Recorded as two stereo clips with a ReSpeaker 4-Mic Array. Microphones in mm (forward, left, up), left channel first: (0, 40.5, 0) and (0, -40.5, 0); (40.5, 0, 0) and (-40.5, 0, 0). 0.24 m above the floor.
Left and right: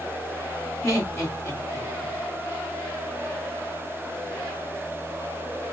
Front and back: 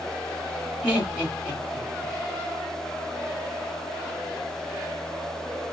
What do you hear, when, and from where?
0.8 s laughter: 120° left, 1.5 m